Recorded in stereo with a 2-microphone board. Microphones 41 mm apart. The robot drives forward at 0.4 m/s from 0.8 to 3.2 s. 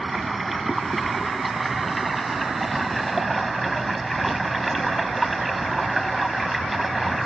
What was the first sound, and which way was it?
Running water, 5° right (ahead or behind).